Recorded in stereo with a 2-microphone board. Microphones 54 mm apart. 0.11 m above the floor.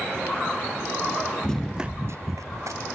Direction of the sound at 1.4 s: 15° left (ahead or behind).